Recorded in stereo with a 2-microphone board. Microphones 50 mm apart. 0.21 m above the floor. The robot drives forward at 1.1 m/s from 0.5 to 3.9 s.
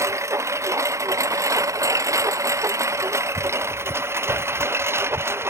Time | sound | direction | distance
0.0 | a lawn mower | 65° right (ahead or behind) | ?